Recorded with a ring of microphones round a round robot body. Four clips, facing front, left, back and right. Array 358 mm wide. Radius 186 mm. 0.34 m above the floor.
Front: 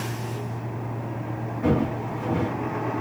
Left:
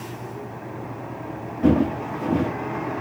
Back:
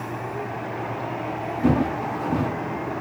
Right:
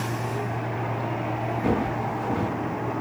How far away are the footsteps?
About 2 m.